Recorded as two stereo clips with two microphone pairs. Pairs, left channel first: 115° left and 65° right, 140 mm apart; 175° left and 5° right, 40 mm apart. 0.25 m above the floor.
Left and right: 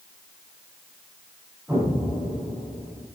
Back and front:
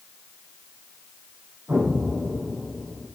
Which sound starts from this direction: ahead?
An explosion, at 1.7 s.